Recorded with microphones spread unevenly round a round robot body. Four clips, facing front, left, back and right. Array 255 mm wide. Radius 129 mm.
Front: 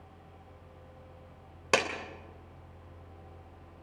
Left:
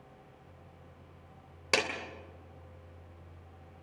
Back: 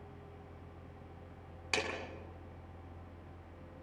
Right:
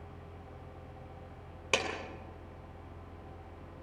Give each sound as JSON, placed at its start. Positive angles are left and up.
{"t": 1.7, "sound": "a clap", "azimuth_deg": 5, "distance_m": 3.0}